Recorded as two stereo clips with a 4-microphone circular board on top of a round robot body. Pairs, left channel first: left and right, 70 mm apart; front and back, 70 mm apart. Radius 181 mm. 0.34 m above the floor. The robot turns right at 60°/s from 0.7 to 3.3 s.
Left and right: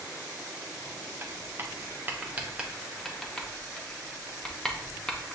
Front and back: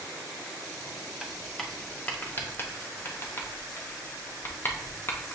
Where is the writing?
105° right, 0.9 m; by 5.4 s 20° left, 0.9 m.